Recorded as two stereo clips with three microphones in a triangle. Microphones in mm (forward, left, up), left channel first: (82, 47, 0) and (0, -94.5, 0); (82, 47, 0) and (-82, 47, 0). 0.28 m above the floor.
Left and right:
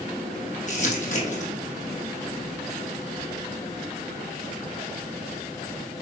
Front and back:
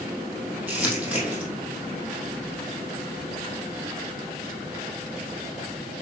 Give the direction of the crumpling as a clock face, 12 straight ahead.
9 o'clock.